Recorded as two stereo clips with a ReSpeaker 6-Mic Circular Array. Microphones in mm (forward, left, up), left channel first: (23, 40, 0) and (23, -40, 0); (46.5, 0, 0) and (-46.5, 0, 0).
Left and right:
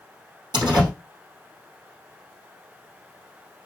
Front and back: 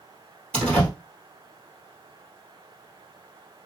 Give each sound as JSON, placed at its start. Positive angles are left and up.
{"t": 0.5, "sound": "a door slam", "azimuth_deg": -80, "distance_m": 3.0}